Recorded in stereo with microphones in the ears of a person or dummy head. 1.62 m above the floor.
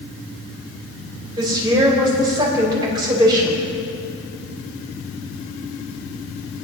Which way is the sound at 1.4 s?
20° right (ahead or behind).